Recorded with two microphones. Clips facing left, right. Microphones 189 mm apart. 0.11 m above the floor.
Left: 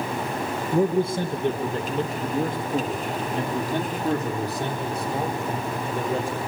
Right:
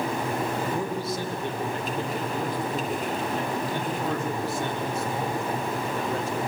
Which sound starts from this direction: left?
A man speaking, at 0.7 s.